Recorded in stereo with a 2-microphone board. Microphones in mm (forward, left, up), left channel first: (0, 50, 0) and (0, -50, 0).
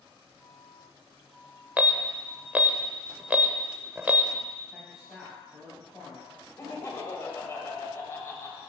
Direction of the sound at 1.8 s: 15° right (ahead or behind).